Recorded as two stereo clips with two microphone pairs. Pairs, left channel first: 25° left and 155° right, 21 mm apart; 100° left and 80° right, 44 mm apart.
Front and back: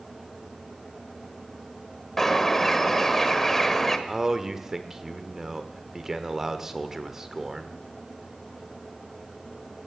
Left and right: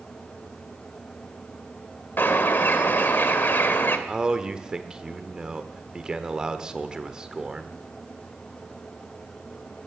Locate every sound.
2.2 s a bird: 95° left, 1.3 m
4.1 s a man speaking: 125° right, 1.2 m